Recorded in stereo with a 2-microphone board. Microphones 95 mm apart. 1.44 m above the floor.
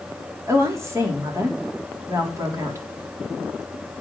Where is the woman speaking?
30° right (ahead or behind), 4 m.